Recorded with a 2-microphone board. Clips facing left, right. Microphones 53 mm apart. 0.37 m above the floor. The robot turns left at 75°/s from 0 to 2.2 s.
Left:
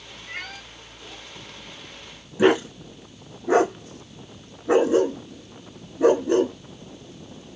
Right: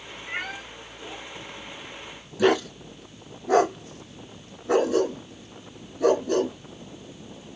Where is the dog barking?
25° left (ahead or behind), 1.0 m.